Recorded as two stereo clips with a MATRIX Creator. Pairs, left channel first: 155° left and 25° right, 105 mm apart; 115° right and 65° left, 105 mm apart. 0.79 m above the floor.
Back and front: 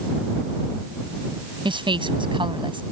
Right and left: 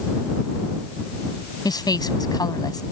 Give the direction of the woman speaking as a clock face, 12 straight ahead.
2 o'clock.